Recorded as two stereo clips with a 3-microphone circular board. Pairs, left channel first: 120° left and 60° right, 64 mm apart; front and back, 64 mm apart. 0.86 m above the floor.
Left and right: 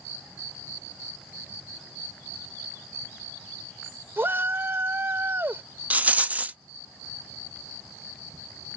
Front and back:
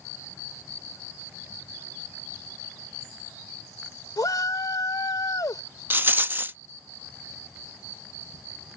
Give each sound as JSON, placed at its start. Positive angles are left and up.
{"t": 4.2, "sound": "a shout", "azimuth_deg": -10}
{"t": 5.9, "sound": "a rattle", "azimuth_deg": -125}